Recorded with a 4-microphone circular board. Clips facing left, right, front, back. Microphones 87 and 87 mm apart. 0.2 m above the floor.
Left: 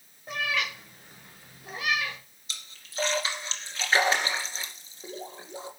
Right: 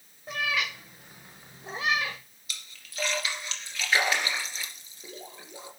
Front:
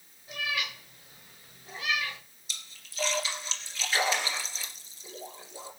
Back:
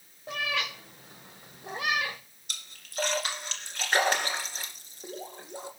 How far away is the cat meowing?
About 3.5 m.